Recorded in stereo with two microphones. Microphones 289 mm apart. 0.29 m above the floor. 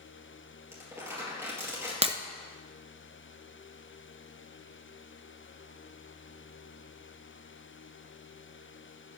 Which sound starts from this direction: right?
Breaking glass, at 2.0 s.